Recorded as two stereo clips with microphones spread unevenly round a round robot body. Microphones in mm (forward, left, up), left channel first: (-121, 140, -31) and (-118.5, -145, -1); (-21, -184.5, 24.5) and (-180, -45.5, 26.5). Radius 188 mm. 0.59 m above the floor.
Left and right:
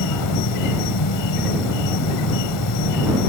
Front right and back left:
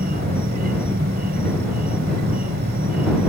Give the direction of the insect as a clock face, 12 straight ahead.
9 o'clock.